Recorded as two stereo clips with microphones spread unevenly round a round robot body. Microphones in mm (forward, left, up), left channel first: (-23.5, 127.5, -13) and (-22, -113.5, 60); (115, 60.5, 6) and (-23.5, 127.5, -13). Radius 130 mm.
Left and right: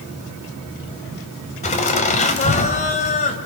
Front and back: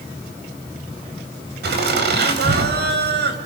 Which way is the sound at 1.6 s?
155° left.